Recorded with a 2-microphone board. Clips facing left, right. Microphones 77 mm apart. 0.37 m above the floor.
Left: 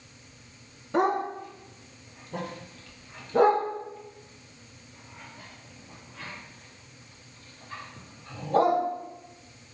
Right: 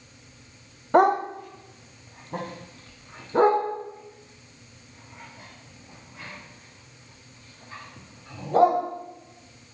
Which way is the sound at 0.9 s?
60° right (ahead or behind).